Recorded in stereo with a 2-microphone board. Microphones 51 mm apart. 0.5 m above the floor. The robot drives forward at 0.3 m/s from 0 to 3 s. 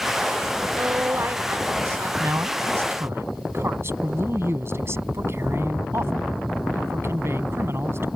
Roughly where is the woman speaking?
Right.